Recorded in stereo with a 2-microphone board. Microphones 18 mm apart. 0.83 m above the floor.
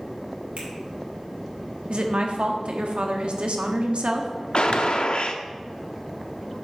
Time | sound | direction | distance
0.6 | a finger snap | 85° right | 3 m
1.9 | a woman speaking | 70° right (ahead or behind) | 1.1 m
4.5 | a gunshot | 55° left (ahead or behind) | 0.6 m